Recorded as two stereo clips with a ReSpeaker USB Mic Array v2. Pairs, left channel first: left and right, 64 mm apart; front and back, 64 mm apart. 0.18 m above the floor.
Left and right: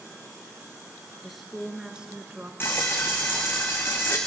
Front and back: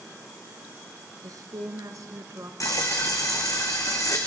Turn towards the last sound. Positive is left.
turn(degrees=35)